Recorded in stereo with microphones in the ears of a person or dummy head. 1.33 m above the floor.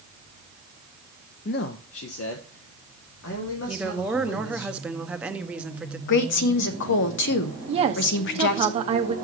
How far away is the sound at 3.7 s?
About 0.6 m.